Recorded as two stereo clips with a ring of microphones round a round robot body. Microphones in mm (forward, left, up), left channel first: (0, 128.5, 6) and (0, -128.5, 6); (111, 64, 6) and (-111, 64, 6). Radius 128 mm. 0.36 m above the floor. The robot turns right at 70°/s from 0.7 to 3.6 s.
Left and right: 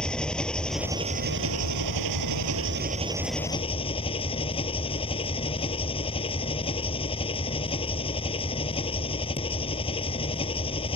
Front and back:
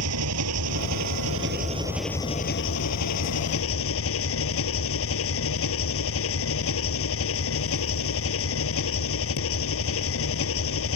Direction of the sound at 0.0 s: 175° left.